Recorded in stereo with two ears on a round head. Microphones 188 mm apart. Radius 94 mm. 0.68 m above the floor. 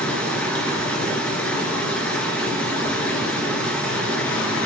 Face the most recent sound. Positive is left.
turn(degrees=5)  # may be behind; listen again after turning